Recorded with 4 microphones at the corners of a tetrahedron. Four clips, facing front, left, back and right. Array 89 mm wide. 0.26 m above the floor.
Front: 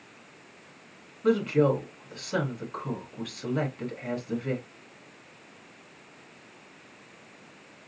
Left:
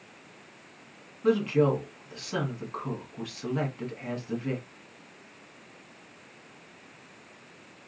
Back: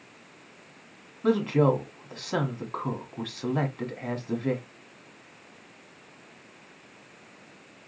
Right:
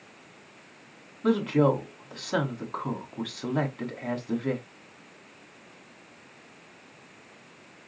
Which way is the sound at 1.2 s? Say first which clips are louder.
Right 1 dB, even; 140° right.